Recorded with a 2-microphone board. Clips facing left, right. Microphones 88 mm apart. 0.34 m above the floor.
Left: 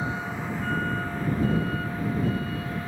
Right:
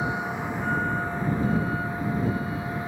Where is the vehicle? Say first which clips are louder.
Right 2 dB; 20° right (ahead or behind).